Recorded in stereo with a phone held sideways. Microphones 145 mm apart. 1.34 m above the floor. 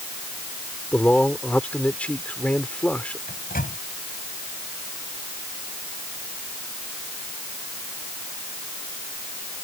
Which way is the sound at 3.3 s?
85° left.